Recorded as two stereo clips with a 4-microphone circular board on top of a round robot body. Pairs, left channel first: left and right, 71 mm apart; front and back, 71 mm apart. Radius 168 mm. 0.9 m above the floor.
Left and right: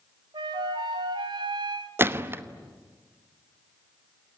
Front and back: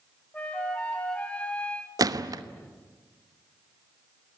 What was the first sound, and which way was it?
A flute, 75° right.